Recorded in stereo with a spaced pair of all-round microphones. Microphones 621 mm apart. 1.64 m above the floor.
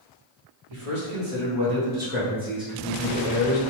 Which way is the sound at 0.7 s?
65° right (ahead or behind).